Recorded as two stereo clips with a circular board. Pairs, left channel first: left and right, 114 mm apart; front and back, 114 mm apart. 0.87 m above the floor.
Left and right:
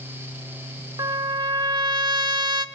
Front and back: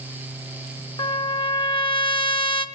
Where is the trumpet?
40° right, 1.0 m.